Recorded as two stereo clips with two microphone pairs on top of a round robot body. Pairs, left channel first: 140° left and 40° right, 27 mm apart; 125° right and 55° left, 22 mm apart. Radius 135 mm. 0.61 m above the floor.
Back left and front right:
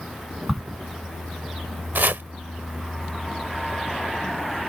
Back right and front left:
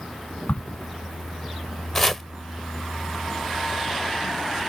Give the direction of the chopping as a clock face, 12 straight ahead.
2 o'clock.